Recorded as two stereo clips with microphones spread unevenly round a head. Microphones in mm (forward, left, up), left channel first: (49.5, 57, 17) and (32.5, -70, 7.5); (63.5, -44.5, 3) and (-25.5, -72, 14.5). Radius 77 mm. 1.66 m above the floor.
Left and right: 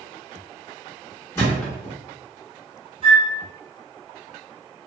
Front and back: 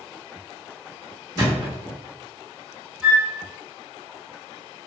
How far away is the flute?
About 0.8 m.